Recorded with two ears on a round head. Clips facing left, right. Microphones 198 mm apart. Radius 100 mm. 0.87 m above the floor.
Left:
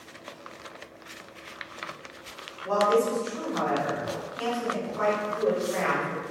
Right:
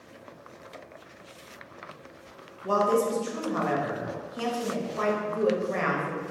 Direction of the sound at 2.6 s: 50° right (ahead or behind).